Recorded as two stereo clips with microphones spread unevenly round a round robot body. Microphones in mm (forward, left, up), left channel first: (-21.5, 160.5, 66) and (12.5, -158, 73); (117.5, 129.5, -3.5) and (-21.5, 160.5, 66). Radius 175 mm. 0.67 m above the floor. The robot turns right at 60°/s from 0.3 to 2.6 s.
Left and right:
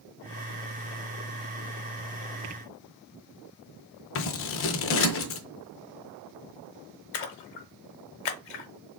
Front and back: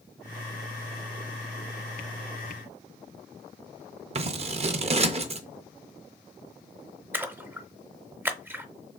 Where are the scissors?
145° left, 0.6 m.